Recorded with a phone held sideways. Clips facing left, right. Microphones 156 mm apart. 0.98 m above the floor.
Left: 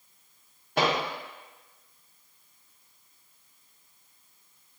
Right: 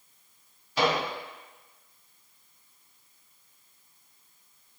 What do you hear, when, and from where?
0.8 s a microwave: 60° left (ahead or behind), 0.6 m